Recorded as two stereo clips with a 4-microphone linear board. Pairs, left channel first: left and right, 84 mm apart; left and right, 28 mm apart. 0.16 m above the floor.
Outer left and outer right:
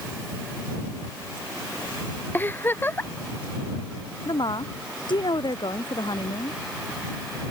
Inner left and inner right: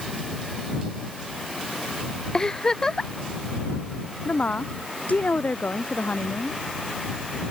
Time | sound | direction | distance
2.3 | a giggle | 25° left (ahead or behind) | ?
4.2 | a woman speaking | 65° left (ahead or behind) | ?